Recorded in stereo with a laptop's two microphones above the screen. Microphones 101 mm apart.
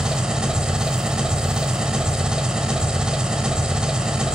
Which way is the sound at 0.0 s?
10° right (ahead or behind).